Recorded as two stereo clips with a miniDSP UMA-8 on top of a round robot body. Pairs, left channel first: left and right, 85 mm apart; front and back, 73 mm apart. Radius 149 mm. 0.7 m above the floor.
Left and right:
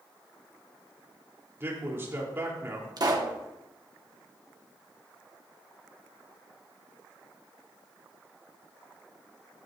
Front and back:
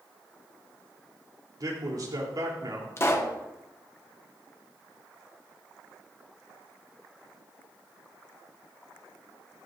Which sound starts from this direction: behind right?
A man speaking, at 1.6 s.